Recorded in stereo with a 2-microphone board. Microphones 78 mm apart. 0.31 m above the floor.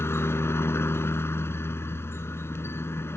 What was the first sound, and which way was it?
A helicopter, 30° left (ahead or behind).